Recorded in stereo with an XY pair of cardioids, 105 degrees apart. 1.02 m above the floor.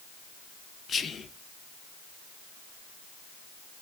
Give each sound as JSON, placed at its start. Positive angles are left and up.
{"t": 0.9, "sound": "whispering", "azimuth_deg": 40, "distance_m": 0.5}